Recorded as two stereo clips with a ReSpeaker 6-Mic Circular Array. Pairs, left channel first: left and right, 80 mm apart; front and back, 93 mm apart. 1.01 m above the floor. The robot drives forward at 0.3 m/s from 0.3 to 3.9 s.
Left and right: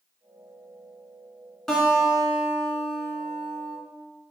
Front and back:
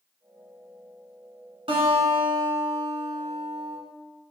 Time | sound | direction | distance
1.7 | a guitar | 175° left | 1.7 m